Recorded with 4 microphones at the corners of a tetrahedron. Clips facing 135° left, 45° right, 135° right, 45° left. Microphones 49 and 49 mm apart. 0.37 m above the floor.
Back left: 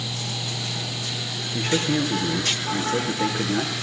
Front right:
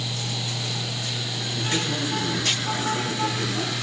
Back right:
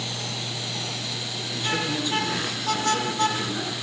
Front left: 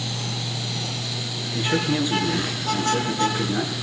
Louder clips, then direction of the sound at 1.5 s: Back left 5 dB, front left 4 dB; 120° left.